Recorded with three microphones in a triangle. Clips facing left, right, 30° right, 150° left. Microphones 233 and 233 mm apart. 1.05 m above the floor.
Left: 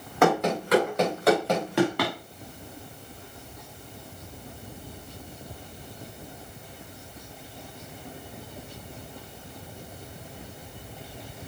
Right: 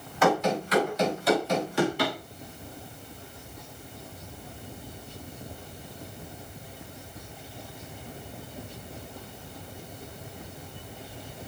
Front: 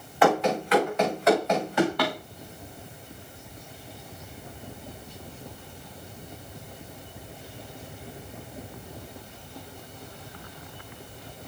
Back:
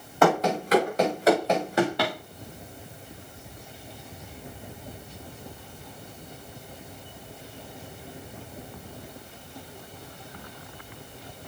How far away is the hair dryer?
No hair dryer in this recording.